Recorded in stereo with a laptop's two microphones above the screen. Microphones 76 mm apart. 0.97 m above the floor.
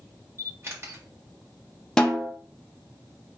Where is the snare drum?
10° left (ahead or behind), 0.7 m.